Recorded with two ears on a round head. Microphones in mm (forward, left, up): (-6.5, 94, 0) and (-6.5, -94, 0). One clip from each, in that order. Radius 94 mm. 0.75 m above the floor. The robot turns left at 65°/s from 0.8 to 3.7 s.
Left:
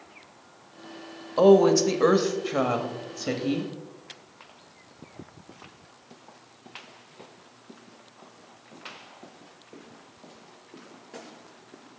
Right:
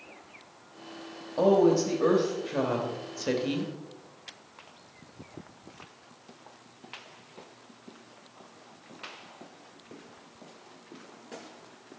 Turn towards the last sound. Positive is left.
turn(degrees=-30)